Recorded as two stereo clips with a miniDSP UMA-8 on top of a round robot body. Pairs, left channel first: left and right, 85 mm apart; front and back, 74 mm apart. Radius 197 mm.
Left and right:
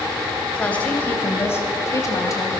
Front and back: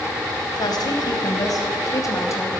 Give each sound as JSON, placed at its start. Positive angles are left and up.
{"t": 0.6, "sound": "a woman speaking", "azimuth_deg": 15, "distance_m": 2.5}